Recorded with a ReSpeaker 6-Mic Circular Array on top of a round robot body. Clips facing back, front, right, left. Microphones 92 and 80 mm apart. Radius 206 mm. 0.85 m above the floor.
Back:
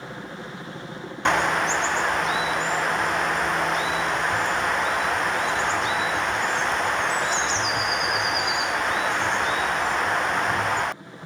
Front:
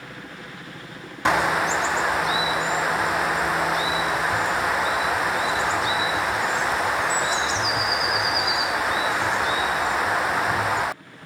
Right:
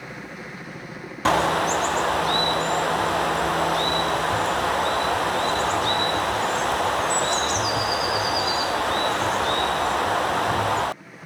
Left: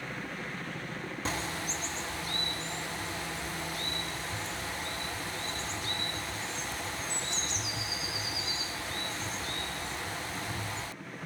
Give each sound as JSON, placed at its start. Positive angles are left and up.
{"t": 0.0, "sound": "a helicopter", "azimuth_deg": -155}
{"t": 1.2, "sound": "a bird", "azimuth_deg": -85}